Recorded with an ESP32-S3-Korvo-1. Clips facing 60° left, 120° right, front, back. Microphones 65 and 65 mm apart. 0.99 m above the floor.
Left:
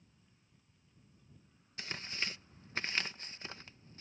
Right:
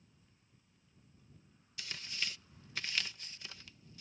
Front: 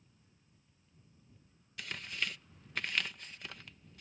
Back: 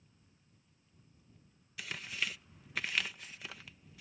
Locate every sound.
1.8 s tearing paper: 95° left